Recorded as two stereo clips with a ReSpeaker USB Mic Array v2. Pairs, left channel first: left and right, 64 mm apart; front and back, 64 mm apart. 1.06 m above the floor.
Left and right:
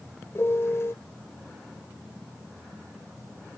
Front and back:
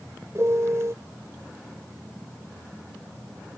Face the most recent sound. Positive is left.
turn(degrees=135)